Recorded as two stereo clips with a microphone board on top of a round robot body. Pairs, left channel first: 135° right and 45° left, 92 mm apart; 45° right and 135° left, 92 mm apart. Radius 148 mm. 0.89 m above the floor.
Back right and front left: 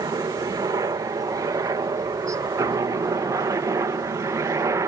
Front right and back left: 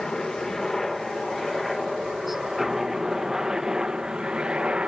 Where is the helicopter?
35° left; by 4.9 s 65° left.